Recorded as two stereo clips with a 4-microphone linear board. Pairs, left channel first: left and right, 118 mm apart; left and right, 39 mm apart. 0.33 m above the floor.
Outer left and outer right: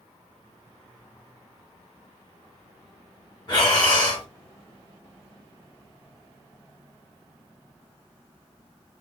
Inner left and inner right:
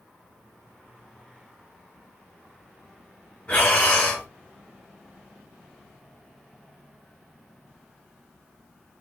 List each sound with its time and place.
3.5 s breathing: 40° left (ahead or behind), 2 m